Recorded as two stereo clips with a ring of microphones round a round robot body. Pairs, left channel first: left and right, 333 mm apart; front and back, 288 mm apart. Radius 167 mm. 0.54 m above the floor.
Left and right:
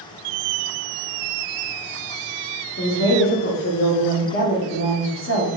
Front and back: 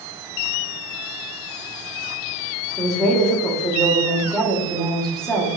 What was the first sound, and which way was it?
A woman speaking, 85° left.